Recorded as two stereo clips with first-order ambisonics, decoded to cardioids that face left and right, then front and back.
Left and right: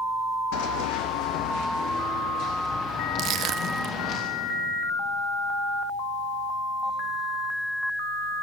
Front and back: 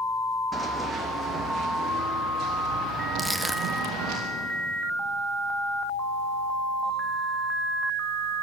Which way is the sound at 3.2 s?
95° right.